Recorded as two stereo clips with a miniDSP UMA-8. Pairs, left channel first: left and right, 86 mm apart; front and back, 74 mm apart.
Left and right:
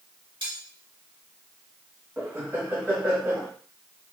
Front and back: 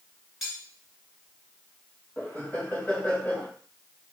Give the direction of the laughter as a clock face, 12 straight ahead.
2 o'clock.